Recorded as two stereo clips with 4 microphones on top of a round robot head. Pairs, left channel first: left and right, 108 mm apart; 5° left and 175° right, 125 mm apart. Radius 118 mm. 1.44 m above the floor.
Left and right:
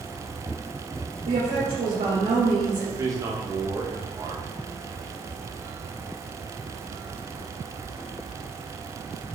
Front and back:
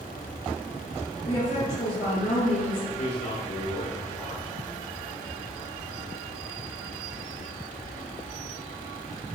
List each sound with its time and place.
1.2 s a woman speaking: 50° right, 1.9 m
3.0 s a man speaking: 30° right, 0.8 m